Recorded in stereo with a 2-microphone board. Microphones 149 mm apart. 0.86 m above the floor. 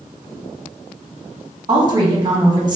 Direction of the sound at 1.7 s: 30° right (ahead or behind).